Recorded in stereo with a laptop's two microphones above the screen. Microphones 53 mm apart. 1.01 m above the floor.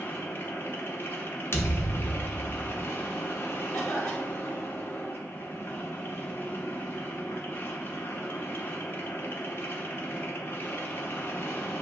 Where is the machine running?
50° left (ahead or behind), 0.8 m.